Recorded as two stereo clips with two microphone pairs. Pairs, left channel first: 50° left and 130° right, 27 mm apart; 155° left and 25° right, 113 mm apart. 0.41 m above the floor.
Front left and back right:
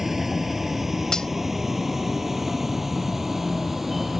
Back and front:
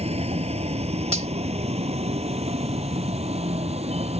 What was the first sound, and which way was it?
A vehicle, 50° right.